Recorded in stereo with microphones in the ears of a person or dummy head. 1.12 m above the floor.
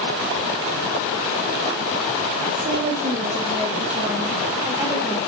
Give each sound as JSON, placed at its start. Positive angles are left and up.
{"t": 2.5, "sound": "a woman speaking", "side_deg": -15, "distance_m": 4.0}